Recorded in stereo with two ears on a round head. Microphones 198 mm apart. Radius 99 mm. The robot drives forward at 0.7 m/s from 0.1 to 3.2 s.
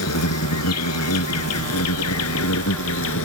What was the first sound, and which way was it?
An insect, 80° left.